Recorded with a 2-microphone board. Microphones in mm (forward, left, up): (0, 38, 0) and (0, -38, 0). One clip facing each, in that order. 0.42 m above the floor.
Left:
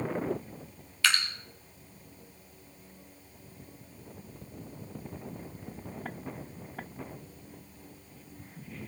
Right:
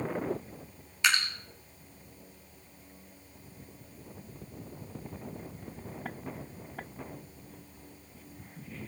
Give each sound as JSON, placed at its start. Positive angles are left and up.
{"t": 1.0, "sound": "dripping", "side_deg": -15, "distance_m": 4.0}